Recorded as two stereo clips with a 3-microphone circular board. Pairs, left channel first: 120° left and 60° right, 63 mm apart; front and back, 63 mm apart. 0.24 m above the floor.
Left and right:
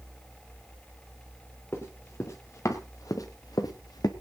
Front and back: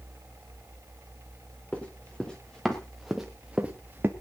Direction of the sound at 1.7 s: 70° left.